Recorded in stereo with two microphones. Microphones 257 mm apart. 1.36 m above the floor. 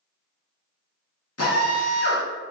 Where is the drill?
70° left (ahead or behind), 1.2 m.